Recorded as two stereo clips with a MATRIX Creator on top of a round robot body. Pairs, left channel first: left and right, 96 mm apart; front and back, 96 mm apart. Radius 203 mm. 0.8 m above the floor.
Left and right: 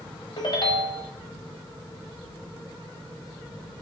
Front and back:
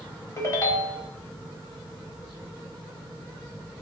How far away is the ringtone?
About 1.1 m.